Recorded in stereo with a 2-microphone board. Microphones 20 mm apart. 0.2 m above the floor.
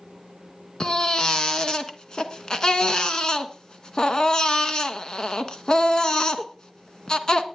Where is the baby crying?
40° left (ahead or behind), 1.4 m.